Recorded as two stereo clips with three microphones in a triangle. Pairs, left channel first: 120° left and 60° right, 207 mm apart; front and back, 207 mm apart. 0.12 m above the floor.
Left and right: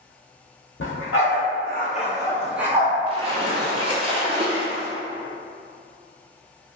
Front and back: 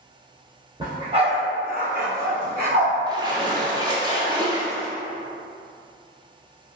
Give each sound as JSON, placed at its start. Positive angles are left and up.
{"t": 0.8, "sound": "a dog barking", "azimuth_deg": 115, "distance_m": 1.1}
{"t": 3.1, "sound": "a splash", "azimuth_deg": -115, "distance_m": 0.8}